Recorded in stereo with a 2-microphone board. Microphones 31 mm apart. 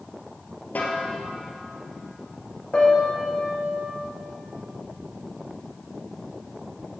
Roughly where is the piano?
Left.